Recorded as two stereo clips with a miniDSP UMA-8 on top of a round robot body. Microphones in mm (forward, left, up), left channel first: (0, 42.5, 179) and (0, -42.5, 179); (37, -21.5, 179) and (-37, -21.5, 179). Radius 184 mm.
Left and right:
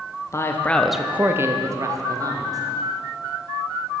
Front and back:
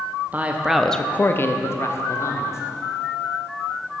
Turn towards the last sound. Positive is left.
turn(degrees=-50)